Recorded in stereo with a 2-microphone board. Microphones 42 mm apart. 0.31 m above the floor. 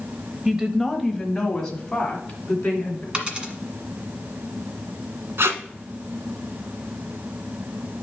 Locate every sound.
0.5 s a woman speaking: 15° right (ahead or behind), 1.0 m; by 3.0 s 25° left (ahead or behind), 3 m
3.1 s a dropped coin: 25° right (ahead or behind), 1.5 m
5.4 s tape being pulled: 80° right, 1.0 m